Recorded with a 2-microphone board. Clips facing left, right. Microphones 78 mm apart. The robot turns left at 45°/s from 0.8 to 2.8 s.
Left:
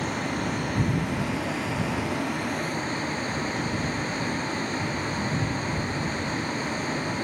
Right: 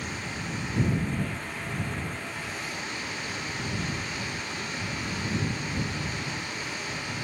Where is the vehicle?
125° left; by 7.2 s 35° left.